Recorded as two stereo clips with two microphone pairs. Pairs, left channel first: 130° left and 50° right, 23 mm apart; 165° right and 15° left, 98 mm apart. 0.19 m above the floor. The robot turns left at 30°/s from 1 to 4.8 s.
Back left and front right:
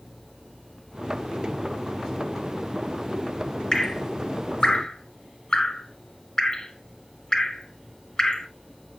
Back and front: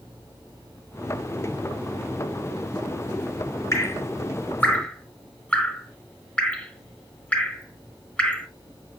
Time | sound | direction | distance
3.7 | dripping | 155° left | 0.7 m